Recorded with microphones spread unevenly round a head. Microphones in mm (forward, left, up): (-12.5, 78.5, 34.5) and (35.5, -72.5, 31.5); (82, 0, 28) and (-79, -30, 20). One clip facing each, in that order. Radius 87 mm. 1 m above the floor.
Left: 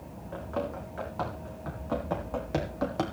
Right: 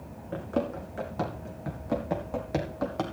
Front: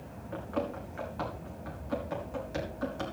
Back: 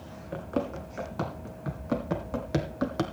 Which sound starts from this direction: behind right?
Running footsteps, at 0.3 s.